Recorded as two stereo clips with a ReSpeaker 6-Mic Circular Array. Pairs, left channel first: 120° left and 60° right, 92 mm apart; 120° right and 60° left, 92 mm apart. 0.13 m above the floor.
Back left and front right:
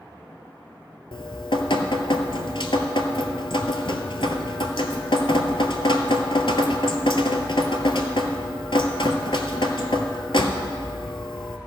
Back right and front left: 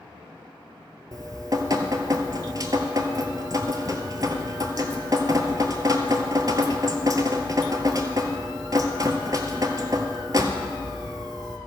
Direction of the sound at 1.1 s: 105° left.